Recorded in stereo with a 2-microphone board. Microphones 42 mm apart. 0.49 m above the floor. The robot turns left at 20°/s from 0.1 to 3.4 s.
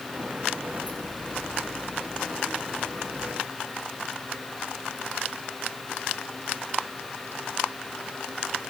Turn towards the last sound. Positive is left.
No sound to turn to.